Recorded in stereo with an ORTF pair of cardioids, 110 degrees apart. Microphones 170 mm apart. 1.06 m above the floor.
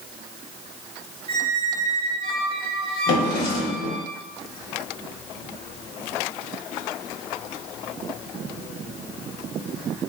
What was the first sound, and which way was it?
A squeak, 35° right.